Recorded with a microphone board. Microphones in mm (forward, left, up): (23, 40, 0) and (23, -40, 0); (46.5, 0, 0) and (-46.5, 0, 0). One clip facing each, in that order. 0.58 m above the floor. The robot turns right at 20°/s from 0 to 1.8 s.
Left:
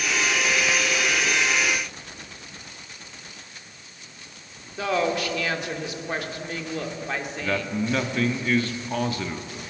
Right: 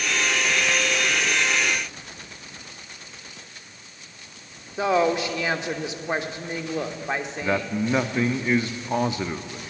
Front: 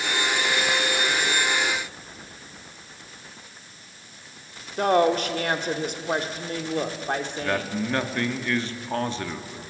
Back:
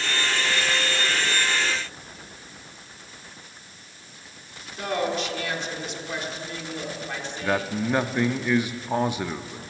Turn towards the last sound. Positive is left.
turn(degrees=-120)